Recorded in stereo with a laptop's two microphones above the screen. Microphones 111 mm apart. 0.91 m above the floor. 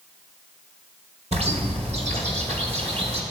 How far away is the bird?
About 2.5 m.